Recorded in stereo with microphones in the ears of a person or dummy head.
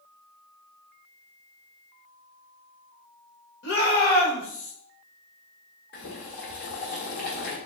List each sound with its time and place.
3.6 s a shout: 55° left (ahead or behind), 1.5 m; by 4.7 s 25° left (ahead or behind), 1.3 m
5.9 s boiling: 60° left (ahead or behind), 1.1 m